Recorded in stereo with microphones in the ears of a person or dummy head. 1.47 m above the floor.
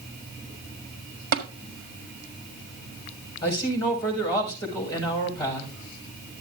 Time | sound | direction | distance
1.3 | tapping | 55° right (ahead or behind) | 1.7 m
3.4 | a man speaking | 20° left (ahead or behind) | 6 m